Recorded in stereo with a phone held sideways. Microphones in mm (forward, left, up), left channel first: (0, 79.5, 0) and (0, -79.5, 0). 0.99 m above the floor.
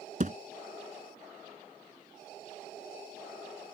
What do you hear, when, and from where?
0.2 s a thud: 55° right (ahead or behind)